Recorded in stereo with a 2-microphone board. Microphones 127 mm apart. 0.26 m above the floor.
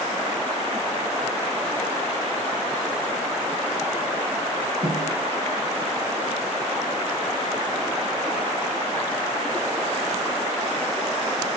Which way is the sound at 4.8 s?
80° right.